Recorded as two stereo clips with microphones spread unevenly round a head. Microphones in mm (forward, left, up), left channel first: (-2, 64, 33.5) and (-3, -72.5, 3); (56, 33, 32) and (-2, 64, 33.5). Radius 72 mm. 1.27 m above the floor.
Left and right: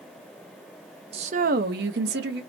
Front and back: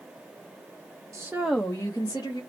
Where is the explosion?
I don't hear an explosion.